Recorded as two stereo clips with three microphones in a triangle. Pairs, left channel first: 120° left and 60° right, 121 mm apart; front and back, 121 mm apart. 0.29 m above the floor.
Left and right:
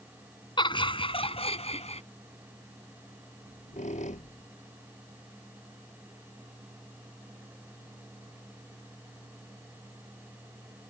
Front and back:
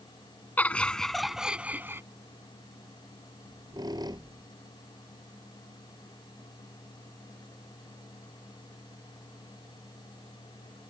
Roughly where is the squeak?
Behind left.